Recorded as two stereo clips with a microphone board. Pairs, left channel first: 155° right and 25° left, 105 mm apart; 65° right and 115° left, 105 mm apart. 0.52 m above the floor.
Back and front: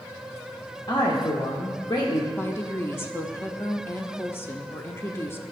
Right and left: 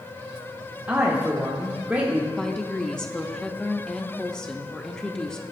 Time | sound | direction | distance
0.9 | a man speaking | straight behind | 1.0 m
2.4 | a woman speaking | 135° right | 0.6 m